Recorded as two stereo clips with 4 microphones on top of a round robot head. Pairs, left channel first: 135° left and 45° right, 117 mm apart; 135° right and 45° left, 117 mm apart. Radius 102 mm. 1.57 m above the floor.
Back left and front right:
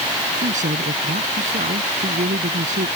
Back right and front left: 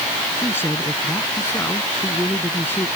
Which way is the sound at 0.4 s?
60° right.